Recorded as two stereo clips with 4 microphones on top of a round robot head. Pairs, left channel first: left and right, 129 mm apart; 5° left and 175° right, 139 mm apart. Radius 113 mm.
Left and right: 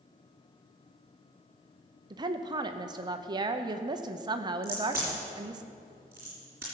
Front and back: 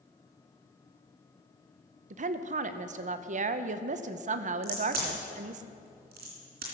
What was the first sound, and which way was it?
A woman speaking, 145° right.